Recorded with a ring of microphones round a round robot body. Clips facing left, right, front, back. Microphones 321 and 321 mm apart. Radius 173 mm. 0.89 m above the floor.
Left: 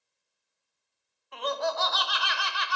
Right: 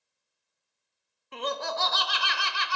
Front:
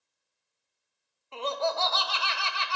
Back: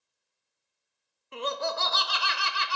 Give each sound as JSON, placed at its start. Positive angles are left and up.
{"t": 1.3, "sound": "laughter", "azimuth_deg": -125, "distance_m": 0.6}